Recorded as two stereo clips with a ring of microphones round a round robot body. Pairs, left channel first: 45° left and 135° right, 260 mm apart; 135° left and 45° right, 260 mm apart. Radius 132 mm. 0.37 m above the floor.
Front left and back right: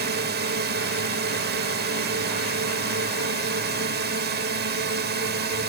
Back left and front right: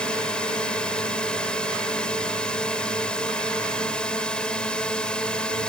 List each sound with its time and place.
0.0 s a drone: 140° right